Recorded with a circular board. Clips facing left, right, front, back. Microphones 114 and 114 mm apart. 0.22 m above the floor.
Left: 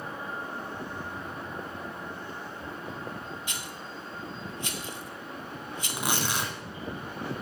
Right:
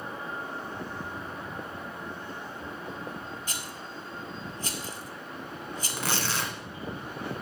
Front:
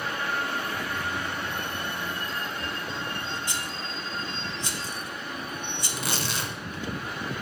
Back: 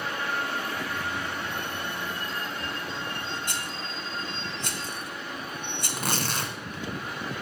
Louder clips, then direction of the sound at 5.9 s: Left 1 dB, back 2 dB; 160° left.